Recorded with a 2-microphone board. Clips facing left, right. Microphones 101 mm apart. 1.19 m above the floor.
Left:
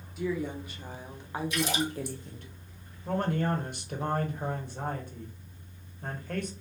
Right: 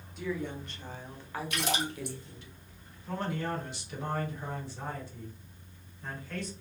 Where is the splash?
65° right (ahead or behind), 1.8 m.